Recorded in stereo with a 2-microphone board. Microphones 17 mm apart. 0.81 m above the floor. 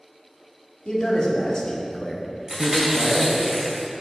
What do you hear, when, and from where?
0.8 s a man speaking: 70° left (ahead or behind), 1.9 m; by 3.5 s 50° right (ahead or behind), 1.8 m
2.5 s chewing: 35° right (ahead or behind), 2.5 m